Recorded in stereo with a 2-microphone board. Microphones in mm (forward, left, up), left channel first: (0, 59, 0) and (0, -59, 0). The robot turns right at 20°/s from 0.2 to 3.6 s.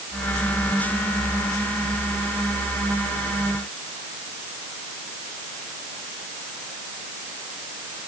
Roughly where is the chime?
No chime in this recording.